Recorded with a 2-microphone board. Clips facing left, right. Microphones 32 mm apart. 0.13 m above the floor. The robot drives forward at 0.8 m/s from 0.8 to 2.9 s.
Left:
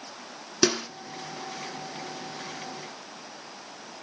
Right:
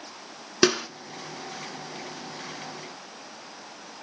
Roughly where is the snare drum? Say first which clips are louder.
Right 3 dB; right.